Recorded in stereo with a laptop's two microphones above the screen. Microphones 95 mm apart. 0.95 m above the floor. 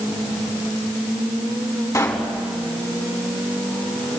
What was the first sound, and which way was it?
A pop, 30° left (ahead or behind).